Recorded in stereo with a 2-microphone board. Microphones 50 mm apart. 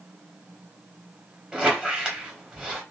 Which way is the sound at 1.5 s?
20° right (ahead or behind).